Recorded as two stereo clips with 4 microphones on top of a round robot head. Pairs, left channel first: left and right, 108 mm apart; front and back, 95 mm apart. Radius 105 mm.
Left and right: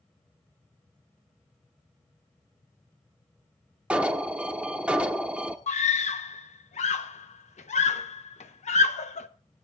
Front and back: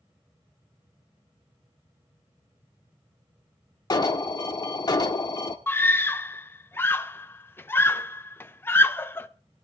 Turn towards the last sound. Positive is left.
turn(degrees=65)